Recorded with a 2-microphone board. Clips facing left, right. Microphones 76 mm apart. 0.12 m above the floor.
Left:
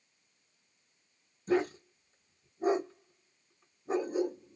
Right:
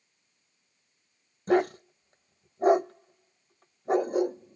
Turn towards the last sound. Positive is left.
turn(degrees=-70)  # may be behind; listen again after turning